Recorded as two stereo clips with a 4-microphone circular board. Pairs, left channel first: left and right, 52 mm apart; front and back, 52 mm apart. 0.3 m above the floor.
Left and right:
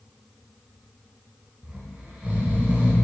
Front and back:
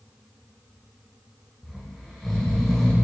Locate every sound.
1.6 s snoring: 85° right, 1.6 m